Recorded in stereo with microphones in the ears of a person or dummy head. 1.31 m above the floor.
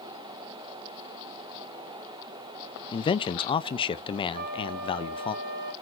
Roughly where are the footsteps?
No footsteps in this recording.